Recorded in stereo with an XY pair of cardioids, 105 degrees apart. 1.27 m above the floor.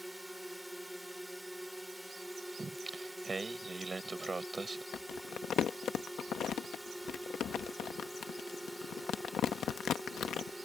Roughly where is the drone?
Ahead.